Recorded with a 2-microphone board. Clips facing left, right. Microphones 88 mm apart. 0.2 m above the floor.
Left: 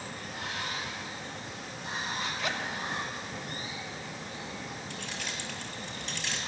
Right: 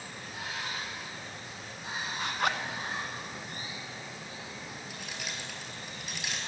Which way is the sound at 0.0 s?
10° right (ahead or behind).